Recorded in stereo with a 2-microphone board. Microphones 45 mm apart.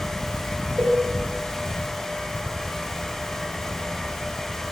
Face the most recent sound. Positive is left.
turn(degrees=-45)  # may be behind; listen again after turning